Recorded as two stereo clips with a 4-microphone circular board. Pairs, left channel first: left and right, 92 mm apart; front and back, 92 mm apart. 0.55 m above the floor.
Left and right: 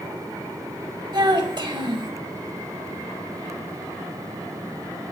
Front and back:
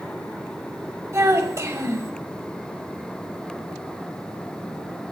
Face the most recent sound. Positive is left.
turn(degrees=-125)